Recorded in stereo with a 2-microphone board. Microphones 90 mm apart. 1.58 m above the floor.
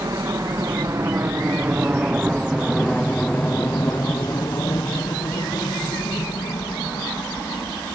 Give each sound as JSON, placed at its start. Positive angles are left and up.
{"t": 0.0, "sound": "a helicopter", "side_deg": -45}